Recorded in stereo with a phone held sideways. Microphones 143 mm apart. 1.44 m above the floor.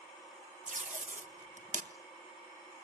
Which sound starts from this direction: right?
Tape being pulled, at 0.7 s.